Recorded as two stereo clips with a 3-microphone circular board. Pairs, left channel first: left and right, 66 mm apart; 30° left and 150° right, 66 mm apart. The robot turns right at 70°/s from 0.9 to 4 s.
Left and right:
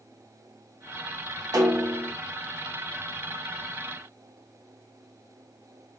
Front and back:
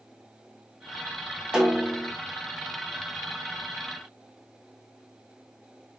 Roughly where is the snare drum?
Right.